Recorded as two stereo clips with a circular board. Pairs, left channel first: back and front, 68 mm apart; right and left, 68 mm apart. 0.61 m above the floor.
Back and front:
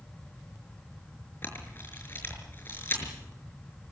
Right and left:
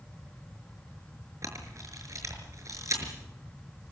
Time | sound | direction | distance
1.4 | a camera shutter | 125° left | 6 m